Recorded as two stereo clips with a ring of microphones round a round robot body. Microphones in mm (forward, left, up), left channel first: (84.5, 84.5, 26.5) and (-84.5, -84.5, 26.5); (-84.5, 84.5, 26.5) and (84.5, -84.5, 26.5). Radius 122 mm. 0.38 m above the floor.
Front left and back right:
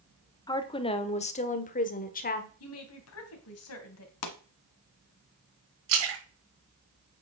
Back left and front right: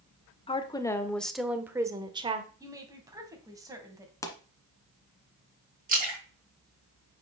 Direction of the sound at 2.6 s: 30° left.